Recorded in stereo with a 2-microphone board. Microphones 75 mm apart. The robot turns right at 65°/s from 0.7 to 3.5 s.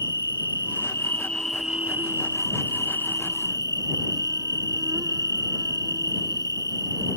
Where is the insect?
125° left; by 7.2 s 55° right.